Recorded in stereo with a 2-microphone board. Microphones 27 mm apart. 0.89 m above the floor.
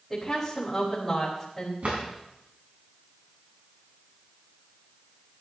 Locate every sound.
0.1 s a woman speaking: 10° left (ahead or behind), 4 m
1.8 s a drawer: 60° right (ahead or behind), 3.5 m